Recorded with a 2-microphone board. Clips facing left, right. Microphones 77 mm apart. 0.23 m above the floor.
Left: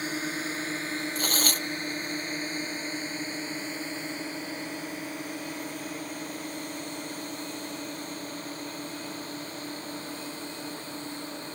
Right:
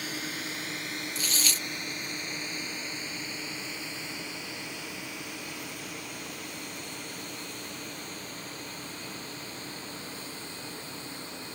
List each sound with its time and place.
0.0 s a drone: 30° left (ahead or behind); by 11.6 s 40° left (ahead or behind)
1.1 s tearing paper: 45° left (ahead or behind)